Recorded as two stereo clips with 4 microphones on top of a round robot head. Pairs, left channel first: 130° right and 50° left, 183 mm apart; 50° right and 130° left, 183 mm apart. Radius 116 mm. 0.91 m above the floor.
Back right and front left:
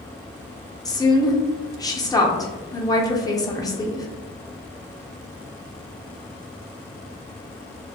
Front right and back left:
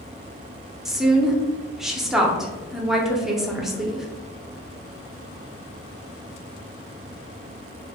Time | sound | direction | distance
0.8 | a woman speaking | 150° right | 0.7 m